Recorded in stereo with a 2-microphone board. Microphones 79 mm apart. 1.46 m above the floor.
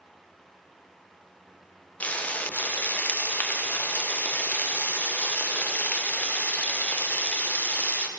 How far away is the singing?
No singing in this recording.